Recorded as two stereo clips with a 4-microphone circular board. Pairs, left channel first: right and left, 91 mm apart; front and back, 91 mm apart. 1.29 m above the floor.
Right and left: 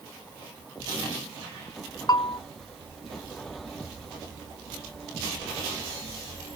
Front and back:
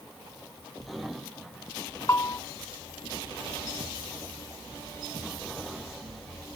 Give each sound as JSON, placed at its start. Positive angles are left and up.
{"t": 2.1, "sound": "a bell", "azimuth_deg": -50, "distance_m": 0.5}